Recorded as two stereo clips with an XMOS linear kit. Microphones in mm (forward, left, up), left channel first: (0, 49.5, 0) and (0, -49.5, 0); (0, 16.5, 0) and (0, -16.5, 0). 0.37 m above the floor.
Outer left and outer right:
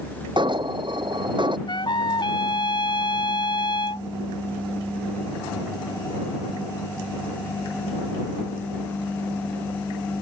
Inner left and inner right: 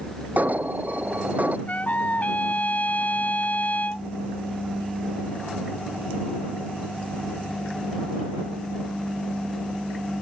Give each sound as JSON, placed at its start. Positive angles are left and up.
{"t": 0.4, "sound": "an alarm", "side_deg": -50}
{"t": 1.7, "sound": "a trumpet", "side_deg": 50}